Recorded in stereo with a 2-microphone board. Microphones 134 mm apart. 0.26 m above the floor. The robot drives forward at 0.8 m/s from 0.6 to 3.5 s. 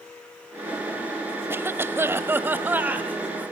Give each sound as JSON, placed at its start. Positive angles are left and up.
{"t": 1.5, "sound": "a cough", "side_deg": -15, "distance_m": 0.9}